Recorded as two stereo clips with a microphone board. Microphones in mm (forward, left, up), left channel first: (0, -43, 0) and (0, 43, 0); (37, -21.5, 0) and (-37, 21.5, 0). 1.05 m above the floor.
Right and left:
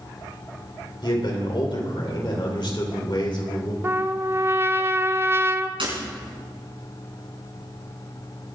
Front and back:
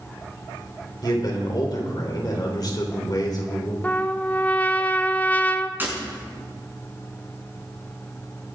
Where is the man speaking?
65° right, 4 m.